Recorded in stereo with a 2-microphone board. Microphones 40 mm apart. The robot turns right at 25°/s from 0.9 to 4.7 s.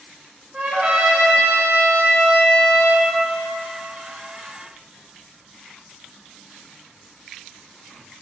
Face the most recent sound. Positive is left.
turn(degrees=-60)